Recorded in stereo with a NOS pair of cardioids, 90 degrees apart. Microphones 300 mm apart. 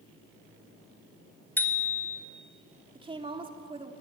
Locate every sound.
1.6 s a bicycle bell: 5° left, 2.5 m
3.0 s a woman speaking: 15° right, 3.5 m